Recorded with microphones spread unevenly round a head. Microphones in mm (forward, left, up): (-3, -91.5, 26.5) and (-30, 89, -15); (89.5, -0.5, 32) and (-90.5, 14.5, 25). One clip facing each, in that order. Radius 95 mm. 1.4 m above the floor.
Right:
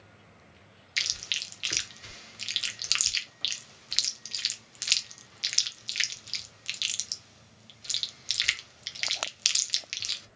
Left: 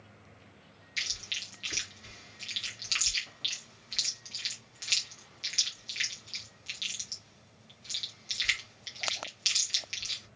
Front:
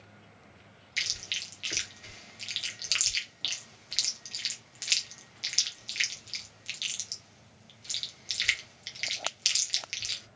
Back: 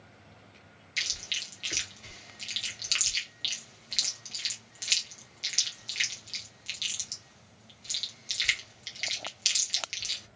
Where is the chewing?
90° right, 1.2 m.